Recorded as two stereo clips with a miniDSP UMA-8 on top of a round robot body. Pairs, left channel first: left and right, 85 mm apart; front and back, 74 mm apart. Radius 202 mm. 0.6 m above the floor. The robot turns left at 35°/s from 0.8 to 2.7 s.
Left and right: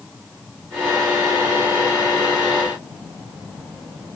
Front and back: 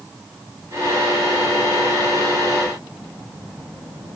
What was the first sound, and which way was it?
Only background noise.